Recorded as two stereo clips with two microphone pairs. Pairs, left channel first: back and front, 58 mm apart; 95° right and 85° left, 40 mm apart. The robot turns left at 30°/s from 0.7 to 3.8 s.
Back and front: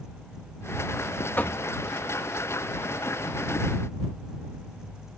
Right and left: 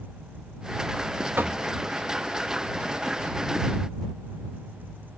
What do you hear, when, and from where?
1.4 s knocking: 125° left; by 1.6 s 115° left